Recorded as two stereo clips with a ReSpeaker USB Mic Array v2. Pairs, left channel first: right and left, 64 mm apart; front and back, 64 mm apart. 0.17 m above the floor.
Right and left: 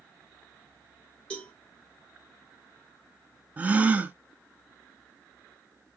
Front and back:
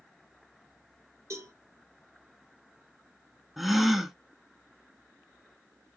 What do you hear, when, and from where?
1.3 s a cowbell: 160° right, 2 m
3.6 s a gasp: 95° left, 0.6 m